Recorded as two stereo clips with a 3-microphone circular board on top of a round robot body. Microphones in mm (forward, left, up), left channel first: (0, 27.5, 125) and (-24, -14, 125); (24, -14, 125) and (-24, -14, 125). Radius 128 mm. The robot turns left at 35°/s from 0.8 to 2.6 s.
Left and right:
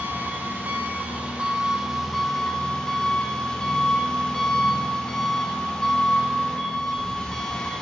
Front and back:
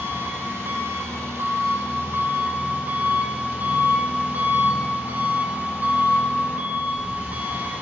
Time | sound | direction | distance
0.0 | an engine running | 160° right | 1.0 m